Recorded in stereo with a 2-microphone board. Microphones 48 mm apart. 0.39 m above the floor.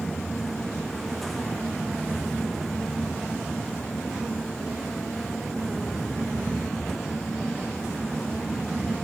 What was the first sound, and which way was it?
Only background noise.